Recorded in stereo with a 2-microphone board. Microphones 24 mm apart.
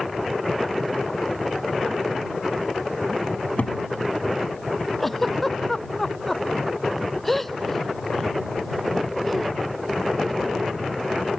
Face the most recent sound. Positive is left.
turn(degrees=10)  # may be behind; listen again after turning